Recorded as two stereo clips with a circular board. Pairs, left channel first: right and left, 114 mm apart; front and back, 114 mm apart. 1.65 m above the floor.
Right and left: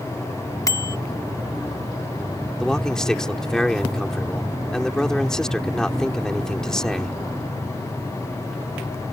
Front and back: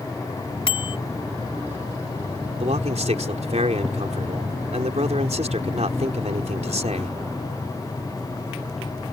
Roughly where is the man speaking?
Behind.